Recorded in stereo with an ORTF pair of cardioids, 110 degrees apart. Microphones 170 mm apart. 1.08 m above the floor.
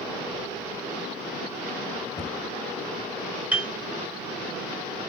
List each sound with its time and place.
2.2 s a cupboard door: 15° left, 1.1 m
3.5 s a piano: 10° right, 2.0 m